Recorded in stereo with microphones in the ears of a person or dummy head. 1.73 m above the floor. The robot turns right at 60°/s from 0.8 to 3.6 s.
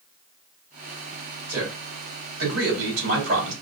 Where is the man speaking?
165° right, 3 m; by 3.5 s 45° right, 3 m.